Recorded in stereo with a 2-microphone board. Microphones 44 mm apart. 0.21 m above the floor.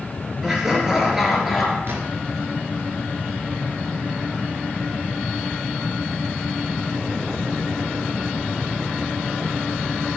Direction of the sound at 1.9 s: 65° right (ahead or behind).